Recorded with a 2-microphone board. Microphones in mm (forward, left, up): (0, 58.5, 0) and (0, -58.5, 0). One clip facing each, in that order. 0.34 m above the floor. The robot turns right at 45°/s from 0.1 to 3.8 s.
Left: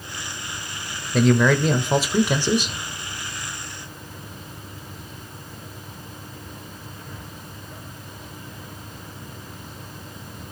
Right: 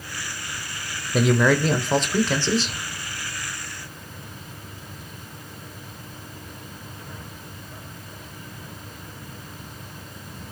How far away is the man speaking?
About 0.9 m.